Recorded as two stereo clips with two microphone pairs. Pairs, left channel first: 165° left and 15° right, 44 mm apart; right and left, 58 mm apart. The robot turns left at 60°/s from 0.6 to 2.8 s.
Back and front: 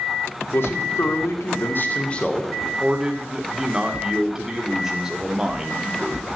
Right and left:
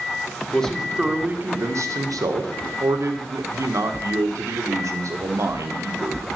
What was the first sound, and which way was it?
A man speaking, 165° right.